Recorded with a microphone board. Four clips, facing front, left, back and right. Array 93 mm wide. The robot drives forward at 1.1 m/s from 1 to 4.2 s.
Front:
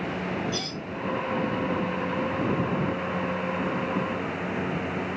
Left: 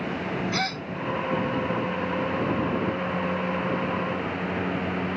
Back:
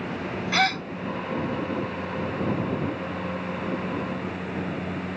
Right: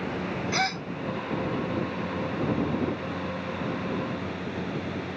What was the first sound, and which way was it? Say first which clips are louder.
A gasp: right 1 dB, back 10 dB; 175° right.